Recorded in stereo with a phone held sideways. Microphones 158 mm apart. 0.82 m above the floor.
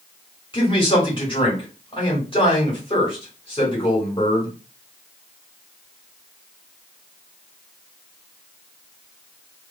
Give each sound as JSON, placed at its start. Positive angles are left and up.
{"t": 0.5, "sound": "a man speaking", "side_deg": 35, "distance_m": 2.5}